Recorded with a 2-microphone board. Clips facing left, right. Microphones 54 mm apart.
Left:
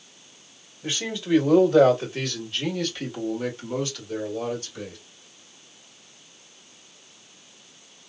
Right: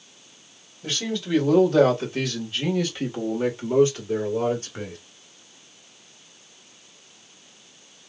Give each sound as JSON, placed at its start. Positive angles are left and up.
{"t": 0.8, "sound": "a man speaking", "side_deg": 15, "distance_m": 2.0}